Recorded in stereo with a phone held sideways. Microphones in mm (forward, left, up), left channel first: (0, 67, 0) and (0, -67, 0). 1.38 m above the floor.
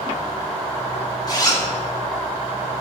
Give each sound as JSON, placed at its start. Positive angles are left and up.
{"t": 1.3, "sound": "a zipper", "side_deg": 30, "distance_m": 1.7}